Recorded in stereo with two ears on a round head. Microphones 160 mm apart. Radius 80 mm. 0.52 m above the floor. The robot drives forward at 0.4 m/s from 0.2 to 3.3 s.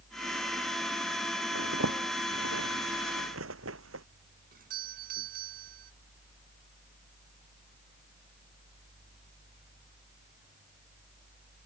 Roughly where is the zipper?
Right.